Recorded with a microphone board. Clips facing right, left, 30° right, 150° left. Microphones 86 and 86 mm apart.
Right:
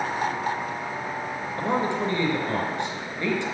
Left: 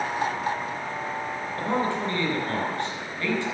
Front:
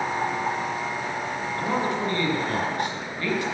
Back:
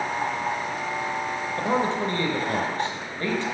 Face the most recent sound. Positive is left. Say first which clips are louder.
# right 1 dB, back 2 dB
turn(degrees=-160)